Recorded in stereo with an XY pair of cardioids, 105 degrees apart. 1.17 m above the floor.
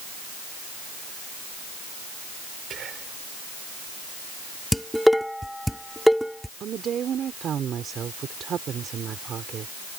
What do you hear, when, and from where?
2.7 s whispering: 60° right
4.7 s dishes clattering: straight ahead
6.6 s a woman speaking: 55° right